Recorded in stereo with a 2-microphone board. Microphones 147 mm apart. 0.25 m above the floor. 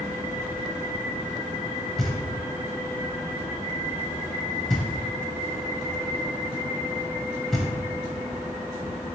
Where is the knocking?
Centre (ahead or behind), 0.6 m.